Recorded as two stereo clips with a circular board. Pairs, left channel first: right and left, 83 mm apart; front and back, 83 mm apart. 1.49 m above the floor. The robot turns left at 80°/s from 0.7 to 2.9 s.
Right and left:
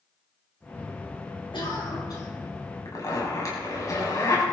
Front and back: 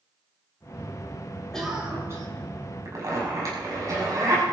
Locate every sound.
1.5 s a cough: 80° right, 7 m; by 2.3 s 140° right, 7 m
2.9 s a zipper: 130° right, 6.5 m; by 4.4 s 135° right, 6.5 m